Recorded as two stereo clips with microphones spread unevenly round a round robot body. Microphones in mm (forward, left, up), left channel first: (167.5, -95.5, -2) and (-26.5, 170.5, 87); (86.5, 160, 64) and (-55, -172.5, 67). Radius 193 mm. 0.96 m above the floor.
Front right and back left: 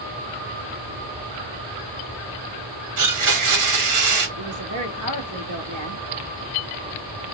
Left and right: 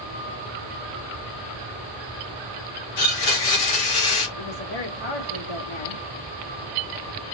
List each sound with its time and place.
3.0 s a blender: 95° left, 2.5 m
4.4 s a woman speaking: 90° left, 2 m